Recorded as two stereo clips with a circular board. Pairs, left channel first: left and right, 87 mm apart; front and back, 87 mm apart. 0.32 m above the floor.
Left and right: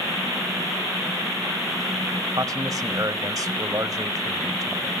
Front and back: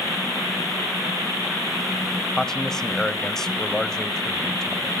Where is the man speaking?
80° right, 1.3 m.